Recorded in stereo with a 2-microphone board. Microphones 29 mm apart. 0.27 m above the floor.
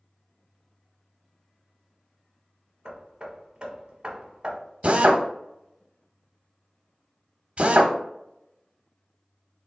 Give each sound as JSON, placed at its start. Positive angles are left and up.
{"t": 2.9, "sound": "hammering", "side_deg": -30, "distance_m": 1.1}
{"t": 4.8, "sound": "a drill", "side_deg": -45, "distance_m": 0.6}